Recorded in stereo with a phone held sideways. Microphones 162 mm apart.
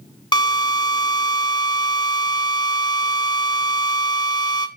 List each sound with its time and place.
0.3 s a drill: 25° left (ahead or behind), 1.5 m